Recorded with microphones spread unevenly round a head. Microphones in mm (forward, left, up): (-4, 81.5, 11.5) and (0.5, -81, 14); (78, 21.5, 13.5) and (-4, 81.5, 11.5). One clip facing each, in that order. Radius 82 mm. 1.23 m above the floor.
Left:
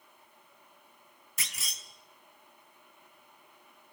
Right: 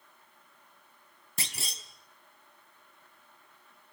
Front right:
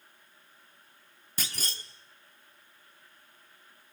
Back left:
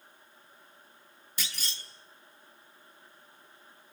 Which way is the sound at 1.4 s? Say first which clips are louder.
Right 5 dB, front right 2 dB; 45° right.